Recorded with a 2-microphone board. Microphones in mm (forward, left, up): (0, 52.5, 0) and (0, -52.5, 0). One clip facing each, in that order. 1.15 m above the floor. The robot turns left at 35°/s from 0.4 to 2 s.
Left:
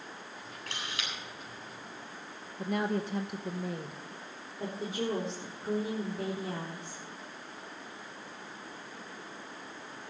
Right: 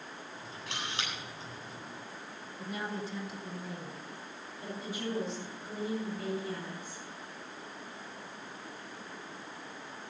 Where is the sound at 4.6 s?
75° left (ahead or behind), 4 m.